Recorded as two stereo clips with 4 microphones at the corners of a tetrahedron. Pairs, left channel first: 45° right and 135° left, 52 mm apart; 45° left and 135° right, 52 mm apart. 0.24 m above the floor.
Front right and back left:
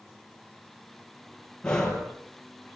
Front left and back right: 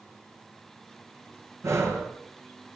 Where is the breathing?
120° right, 6 m.